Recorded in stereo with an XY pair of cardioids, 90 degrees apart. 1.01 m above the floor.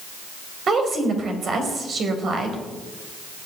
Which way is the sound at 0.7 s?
55° right.